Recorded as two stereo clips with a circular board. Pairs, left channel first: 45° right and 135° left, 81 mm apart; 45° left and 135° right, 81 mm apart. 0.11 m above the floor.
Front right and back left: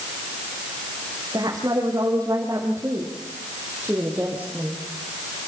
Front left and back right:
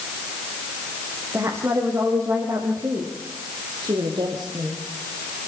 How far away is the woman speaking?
About 5.5 m.